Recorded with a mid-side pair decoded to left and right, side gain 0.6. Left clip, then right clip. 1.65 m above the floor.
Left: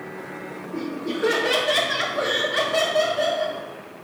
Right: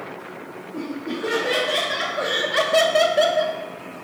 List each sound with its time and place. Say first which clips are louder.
0.7 s laughter: left 1 dB; 50° left, 1.2 m; by 3.6 s 60° right, 0.8 m